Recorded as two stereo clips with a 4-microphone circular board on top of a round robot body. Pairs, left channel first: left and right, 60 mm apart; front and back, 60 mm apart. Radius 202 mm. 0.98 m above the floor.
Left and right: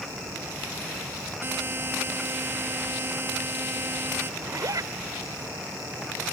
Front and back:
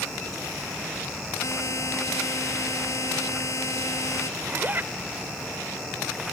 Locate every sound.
1.4 s a buzzer: 35° right
4.4 s a zipper: 120° right